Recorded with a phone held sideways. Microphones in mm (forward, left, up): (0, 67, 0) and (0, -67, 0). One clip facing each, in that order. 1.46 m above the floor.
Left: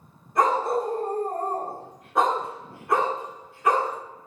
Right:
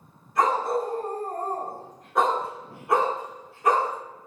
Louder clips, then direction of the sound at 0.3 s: Left 1 dB; 45° left (ahead or behind).